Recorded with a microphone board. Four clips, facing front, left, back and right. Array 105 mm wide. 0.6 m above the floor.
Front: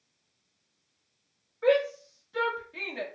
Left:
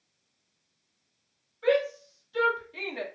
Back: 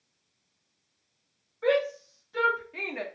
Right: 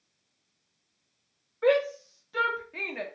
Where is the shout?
90° right, 1.6 m; by 3.0 s 150° right, 0.7 m.